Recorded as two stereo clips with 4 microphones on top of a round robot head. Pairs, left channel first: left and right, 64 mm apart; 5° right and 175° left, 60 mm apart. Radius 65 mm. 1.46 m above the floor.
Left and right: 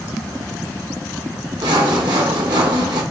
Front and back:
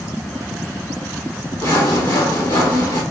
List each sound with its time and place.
1.6 s sawing: 70° right, 2.5 m